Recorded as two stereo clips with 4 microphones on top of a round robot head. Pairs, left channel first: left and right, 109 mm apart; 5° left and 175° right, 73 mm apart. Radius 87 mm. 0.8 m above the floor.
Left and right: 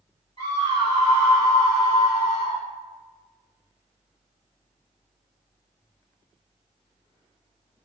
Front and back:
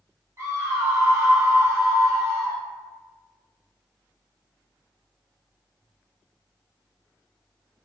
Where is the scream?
140° left, 1.9 m.